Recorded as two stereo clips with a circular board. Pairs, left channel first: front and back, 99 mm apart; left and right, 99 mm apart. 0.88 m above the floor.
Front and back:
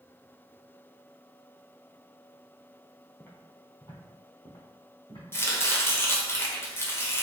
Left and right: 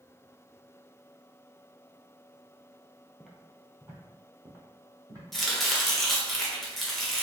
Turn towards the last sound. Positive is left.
turn(degrees=5)